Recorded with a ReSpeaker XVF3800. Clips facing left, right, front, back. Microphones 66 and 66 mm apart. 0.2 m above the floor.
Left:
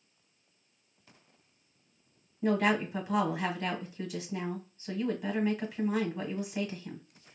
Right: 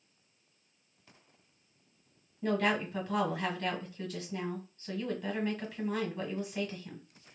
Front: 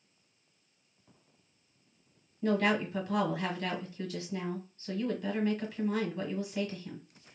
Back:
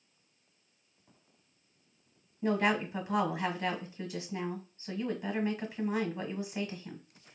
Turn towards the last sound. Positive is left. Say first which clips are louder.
# left 3 dB, front 1 dB
turn(degrees=150)